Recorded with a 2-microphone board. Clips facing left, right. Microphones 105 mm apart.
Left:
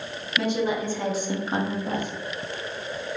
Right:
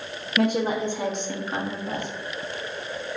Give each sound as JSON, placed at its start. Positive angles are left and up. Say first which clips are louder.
{"t": 0.4, "sound": "a woman speaking", "louder": "right 2 dB", "side_deg": -55, "distance_m": 0.8}